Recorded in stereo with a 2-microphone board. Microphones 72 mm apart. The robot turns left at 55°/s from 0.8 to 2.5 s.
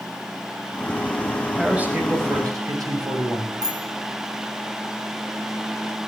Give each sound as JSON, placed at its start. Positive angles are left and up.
{"t": 1.6, "sound": "a man speaking", "azimuth_deg": -5, "distance_m": 6.0}
{"t": 3.6, "sound": "a bicycle bell", "side_deg": -70, "distance_m": 7.0}